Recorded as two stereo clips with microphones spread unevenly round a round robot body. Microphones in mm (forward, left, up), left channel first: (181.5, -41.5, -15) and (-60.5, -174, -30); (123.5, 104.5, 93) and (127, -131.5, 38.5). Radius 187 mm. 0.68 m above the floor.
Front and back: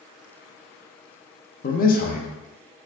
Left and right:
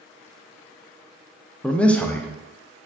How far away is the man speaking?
About 0.6 m.